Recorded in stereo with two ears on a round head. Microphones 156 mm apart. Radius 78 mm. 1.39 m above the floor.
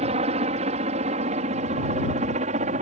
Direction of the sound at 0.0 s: 40° right (ahead or behind).